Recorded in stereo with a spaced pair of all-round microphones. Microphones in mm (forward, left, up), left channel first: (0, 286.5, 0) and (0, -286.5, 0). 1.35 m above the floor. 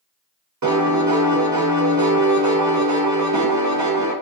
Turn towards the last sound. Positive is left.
turn(degrees=-35)  # may be behind; listen again after turning